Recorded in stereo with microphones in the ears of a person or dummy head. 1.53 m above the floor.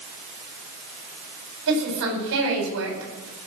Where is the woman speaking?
65° right (ahead or behind), 9.5 m.